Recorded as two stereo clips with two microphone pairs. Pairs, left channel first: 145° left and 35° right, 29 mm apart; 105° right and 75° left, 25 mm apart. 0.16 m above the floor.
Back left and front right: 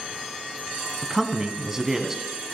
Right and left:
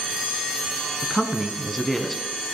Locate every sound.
1.0 s a man speaking: 45° right, 1.1 m